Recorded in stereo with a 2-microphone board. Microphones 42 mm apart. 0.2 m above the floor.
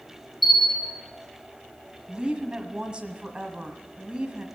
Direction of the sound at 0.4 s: Centre (ahead or behind).